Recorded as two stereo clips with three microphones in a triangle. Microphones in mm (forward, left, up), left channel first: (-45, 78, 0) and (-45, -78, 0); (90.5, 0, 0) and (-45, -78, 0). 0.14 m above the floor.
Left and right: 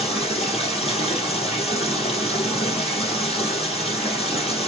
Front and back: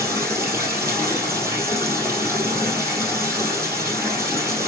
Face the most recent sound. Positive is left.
turn(degrees=140)